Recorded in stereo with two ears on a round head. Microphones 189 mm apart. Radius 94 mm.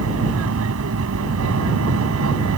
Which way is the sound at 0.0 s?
75° right (ahead or behind).